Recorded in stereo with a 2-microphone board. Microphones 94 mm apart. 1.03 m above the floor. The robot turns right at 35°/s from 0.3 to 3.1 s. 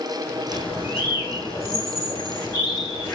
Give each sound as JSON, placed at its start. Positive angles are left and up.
{"t": 0.5, "sound": "a bird", "azimuth_deg": 65, "distance_m": 2.5}